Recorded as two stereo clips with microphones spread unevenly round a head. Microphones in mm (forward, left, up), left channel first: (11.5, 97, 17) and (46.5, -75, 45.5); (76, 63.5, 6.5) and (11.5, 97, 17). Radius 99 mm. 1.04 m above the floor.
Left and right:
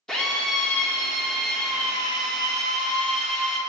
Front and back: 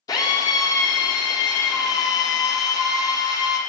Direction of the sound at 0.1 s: 15° left.